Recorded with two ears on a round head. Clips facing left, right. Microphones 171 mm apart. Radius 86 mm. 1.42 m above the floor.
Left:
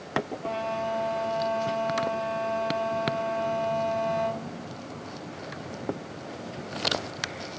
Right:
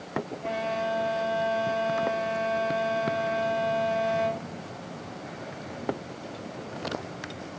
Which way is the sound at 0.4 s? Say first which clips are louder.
Right 1 dB; 15° right (ahead or behind).